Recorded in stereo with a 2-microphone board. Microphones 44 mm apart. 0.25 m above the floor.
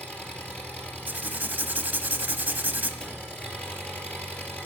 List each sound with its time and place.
0.0 s an engine running: 30° left (ahead or behind), 2.5 m
1.1 s writing: 45° right (ahead or behind), 0.9 m
3.0 s a cupboard door: 25° left (ahead or behind), 4.5 m